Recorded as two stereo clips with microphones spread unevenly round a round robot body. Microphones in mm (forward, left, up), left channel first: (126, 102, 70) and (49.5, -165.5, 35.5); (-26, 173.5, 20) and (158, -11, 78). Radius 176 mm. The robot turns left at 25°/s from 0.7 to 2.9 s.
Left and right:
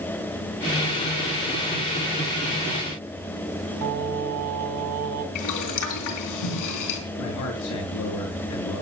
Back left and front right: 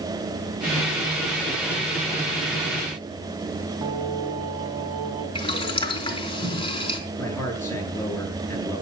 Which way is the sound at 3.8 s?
120° right.